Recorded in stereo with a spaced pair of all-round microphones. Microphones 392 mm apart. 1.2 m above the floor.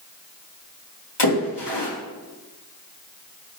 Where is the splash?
75° left (ahead or behind), 2.5 m.